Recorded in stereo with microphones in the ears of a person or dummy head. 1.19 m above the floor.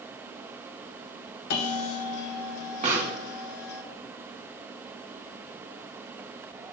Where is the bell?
60° left (ahead or behind), 1.5 m.